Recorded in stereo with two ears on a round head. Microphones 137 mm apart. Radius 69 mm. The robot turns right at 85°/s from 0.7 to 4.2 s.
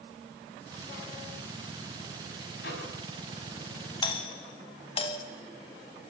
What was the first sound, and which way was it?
A microwave, 65° left (ahead or behind).